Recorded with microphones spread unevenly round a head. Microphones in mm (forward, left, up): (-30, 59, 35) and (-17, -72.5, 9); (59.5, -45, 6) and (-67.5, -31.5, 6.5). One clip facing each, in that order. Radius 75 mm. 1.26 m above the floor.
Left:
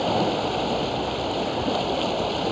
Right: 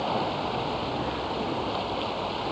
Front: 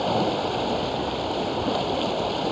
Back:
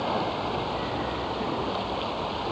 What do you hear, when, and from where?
0.0 s running water: 45° left